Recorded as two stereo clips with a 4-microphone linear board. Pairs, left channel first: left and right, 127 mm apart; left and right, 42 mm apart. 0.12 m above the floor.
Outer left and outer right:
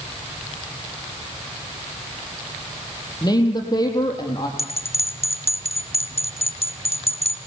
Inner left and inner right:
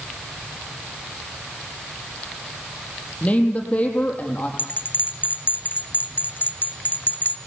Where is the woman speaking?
30° left (ahead or behind), 4 m.